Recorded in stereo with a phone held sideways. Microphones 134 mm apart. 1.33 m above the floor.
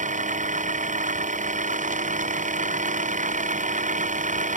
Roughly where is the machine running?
Right.